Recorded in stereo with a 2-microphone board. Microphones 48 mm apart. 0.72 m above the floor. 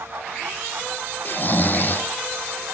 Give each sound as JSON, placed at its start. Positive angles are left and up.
{"t": 1.2, "sound": "snoring", "side_deg": 40, "distance_m": 1.1}